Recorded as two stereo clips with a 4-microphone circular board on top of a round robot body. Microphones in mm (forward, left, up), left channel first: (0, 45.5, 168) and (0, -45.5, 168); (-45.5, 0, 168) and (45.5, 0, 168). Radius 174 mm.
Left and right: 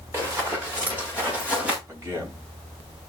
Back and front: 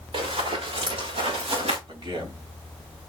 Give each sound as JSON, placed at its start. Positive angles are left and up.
{"t": 0.1, "sound": "running footsteps", "azimuth_deg": -25, "distance_m": 6.5}
{"t": 1.9, "sound": "a man speaking", "azimuth_deg": -30, "distance_m": 4.0}